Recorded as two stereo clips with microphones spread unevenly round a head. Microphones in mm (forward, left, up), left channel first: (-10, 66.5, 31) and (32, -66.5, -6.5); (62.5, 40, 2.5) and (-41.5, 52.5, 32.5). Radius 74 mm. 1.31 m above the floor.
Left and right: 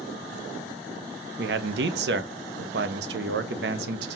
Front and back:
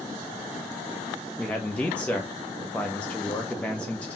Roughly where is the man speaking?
Right.